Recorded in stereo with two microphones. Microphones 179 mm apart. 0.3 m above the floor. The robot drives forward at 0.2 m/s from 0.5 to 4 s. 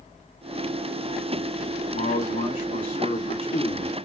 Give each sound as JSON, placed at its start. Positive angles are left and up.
{"t": 1.9, "sound": "a man speaking", "side_deg": 55, "distance_m": 1.6}